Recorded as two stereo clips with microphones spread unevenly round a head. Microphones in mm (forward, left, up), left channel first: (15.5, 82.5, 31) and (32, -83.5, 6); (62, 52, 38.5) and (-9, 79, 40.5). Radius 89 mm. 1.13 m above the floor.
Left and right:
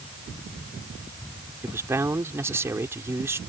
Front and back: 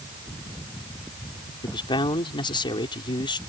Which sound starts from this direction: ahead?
A man speaking, at 1.6 s.